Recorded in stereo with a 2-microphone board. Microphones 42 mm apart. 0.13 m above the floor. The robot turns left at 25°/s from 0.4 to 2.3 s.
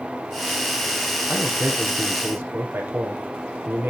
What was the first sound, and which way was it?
A man speaking, 70° right (ahead or behind).